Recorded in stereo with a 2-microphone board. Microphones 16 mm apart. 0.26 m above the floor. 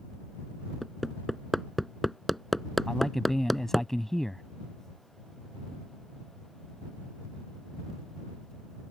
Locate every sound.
0.8 s hammering: 5° left (ahead or behind)
2.9 s a man speaking: 20° left (ahead or behind)